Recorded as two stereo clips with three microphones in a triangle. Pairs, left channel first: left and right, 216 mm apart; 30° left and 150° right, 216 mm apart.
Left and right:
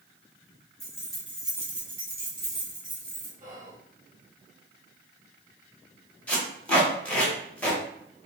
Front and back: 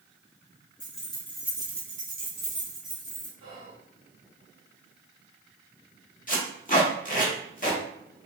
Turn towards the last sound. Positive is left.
turn(degrees=10)